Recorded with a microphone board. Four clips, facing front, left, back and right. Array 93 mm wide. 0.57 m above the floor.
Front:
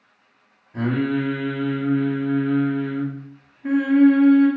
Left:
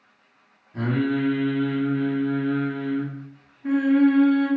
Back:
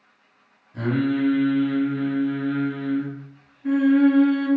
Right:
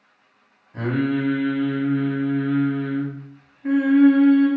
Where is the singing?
20° right, 0.7 m.